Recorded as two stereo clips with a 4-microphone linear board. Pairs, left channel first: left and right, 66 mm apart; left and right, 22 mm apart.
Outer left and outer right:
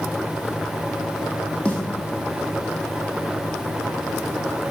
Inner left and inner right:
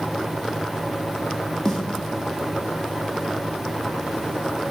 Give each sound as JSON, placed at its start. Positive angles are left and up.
{"t": 1.6, "sound": "a snare drum", "side_deg": 15, "distance_m": 2.5}